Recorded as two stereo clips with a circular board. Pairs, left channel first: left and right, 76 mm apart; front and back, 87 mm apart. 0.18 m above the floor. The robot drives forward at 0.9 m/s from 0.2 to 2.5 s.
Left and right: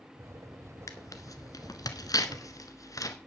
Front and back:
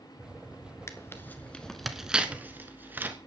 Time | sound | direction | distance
0.9 | tearing paper | 50° left | 1.6 m